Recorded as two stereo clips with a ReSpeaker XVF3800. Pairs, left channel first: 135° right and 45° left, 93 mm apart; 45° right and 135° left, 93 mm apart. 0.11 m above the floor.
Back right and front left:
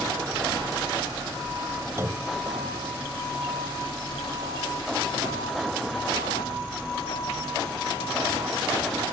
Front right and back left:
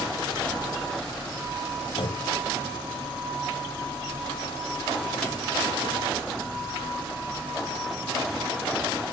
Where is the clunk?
20° right.